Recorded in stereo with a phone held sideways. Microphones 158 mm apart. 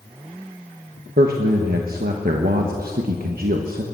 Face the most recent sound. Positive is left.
turn(degrees=-75)  # may be behind; listen again after turning